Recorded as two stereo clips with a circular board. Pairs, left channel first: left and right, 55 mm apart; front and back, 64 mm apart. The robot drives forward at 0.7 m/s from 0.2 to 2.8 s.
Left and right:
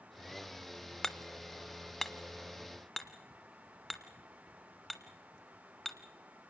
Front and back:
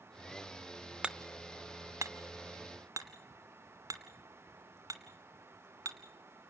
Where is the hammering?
155° left, 0.6 m; by 6.0 s 175° left, 1.5 m.